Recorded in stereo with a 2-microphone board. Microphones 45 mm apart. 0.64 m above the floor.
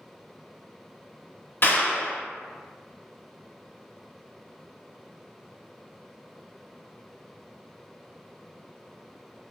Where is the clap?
50° left (ahead or behind), 1.0 m.